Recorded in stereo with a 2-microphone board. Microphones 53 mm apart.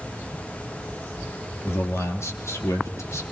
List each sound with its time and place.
1.6 s a man speaking: 55° left (ahead or behind), 2.5 m; by 3.2 s 60° left (ahead or behind), 3.5 m